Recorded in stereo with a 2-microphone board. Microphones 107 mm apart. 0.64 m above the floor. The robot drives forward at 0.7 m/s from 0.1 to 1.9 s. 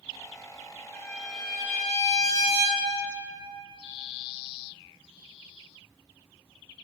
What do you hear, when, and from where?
0.9 s a violin: 5° left (ahead or behind), 2 m; by 3.2 s centre (ahead or behind), 3 m